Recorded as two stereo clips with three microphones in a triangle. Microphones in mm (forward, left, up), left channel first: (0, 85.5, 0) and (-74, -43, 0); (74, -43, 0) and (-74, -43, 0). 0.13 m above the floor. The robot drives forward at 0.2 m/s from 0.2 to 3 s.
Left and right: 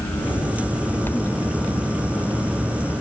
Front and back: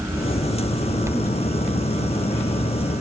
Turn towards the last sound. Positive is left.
No sound to turn to.